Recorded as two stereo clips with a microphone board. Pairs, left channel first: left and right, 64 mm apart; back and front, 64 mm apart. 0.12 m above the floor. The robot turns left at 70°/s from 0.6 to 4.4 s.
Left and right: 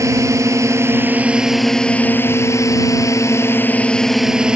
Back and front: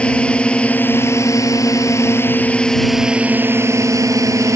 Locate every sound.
0.0 s a drone: 110° right; by 4.6 s 15° right